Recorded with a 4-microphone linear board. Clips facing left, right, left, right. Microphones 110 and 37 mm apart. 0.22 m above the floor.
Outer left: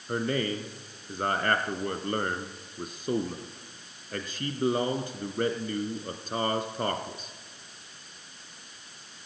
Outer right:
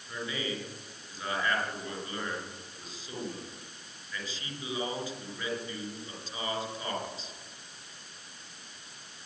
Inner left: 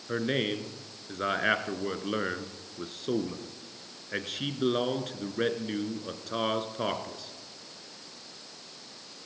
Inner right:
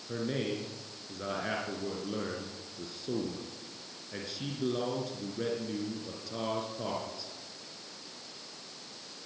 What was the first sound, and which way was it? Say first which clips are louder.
A man speaking: outer left 7 dB, inner left 5 dB; 60° left (ahead or behind).